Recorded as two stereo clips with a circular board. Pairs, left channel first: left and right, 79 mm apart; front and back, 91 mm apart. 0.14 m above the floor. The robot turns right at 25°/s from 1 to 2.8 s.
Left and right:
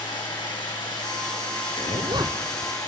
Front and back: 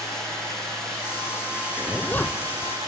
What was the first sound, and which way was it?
Running water, 85° left.